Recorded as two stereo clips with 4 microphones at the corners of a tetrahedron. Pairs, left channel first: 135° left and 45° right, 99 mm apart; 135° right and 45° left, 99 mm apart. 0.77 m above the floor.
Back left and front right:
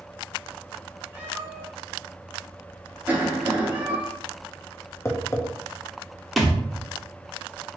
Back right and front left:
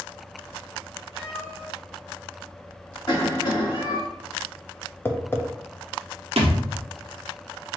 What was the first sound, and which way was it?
A cat meowing, 120° right.